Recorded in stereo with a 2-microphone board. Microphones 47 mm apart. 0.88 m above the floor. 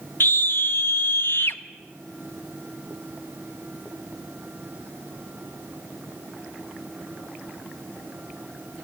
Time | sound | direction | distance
0.2 | a scream | 50° left (ahead or behind) | 1.1 m